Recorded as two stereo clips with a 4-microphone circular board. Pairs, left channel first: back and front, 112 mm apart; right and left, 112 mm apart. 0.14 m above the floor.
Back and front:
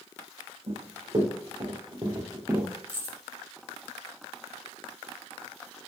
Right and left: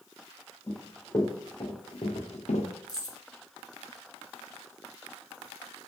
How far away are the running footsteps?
About 2.5 m.